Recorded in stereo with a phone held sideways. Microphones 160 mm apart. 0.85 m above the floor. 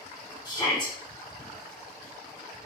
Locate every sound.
0.5 s a shout: 25° left (ahead or behind), 1.7 m